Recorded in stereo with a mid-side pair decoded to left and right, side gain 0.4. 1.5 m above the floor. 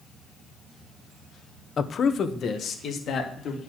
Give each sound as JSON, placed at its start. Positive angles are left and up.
{"t": 1.8, "sound": "a man speaking", "azimuth_deg": 50, "distance_m": 0.8}